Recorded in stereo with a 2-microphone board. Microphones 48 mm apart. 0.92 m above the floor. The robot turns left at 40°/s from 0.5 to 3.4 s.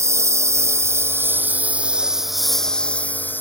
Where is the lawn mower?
85° right; by 3.4 s 45° left (ahead or behind).